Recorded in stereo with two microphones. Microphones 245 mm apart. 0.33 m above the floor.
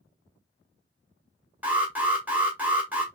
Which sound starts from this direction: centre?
An alarm, at 1.6 s.